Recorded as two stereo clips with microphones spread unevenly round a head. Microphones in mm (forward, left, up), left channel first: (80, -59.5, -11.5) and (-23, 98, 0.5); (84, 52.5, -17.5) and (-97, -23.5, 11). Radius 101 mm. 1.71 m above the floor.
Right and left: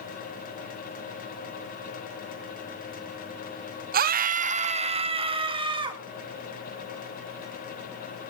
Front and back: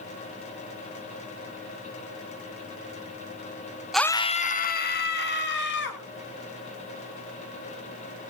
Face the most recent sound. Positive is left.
turn(degrees=60)